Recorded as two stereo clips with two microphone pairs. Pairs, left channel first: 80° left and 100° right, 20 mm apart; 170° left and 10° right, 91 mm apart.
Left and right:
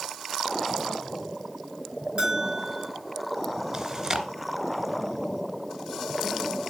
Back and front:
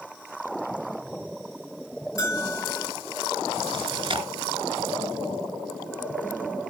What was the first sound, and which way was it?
A bell, 135° right.